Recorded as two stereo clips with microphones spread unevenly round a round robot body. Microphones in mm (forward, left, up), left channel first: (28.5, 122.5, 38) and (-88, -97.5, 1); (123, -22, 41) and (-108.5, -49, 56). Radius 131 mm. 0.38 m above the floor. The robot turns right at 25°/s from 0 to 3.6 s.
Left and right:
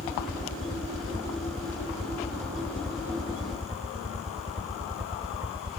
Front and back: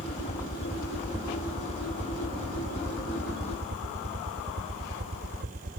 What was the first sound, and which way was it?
A helicopter, 75° left.